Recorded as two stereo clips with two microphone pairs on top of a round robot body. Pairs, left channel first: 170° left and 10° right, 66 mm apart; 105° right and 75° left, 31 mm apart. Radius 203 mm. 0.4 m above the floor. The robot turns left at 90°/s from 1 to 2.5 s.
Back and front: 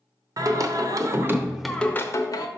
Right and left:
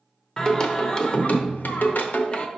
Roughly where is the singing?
Ahead right.